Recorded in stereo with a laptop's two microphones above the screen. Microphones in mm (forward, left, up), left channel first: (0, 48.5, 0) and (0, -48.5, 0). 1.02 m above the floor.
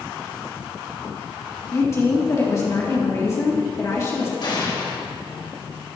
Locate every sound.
1.7 s a woman speaking: 35° left (ahead or behind), 2 m
4.4 s an explosion: 55° left (ahead or behind), 2.0 m